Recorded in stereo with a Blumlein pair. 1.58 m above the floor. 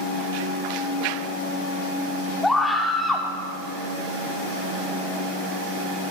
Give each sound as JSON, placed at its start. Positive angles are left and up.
{"t": 2.4, "sound": "a scream", "azimuth_deg": 10, "distance_m": 4.5}